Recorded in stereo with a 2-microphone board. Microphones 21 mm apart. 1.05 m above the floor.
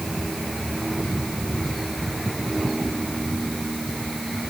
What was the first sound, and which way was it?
Only background noise.